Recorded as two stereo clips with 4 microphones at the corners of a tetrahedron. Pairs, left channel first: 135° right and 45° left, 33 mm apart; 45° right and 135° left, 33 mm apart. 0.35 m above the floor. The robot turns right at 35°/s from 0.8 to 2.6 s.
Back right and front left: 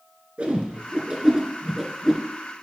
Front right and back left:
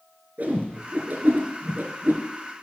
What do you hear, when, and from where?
0.4 s a whoosh: 95° left, 1.0 m; by 2.2 s 145° left, 1.0 m